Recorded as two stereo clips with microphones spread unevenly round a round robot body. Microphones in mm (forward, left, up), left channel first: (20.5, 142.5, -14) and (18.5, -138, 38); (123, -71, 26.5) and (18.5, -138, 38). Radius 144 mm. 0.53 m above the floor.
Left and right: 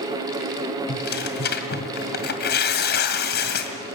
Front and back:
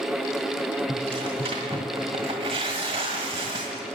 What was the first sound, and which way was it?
Tearing paper, 145° left.